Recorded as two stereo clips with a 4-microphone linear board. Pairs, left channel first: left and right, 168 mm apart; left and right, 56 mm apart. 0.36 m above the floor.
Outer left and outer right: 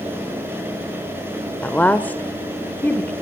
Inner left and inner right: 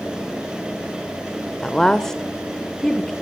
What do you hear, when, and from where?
1.6 s a woman speaking: 10° left (ahead or behind), 0.8 m